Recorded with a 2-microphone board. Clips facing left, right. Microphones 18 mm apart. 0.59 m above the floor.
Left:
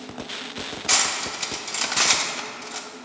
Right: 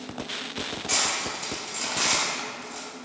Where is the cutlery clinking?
50° left (ahead or behind), 0.6 m.